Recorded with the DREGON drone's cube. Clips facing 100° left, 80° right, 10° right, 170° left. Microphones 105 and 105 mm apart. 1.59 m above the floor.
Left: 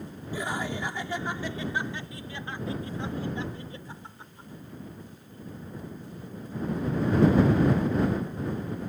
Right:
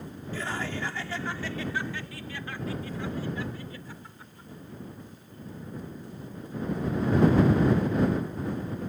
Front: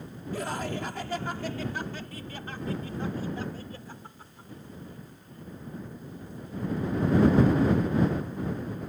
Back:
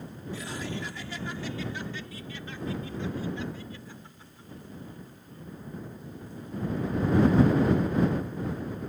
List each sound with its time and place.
0.3 s laughter: 25° left; by 4.5 s 40° left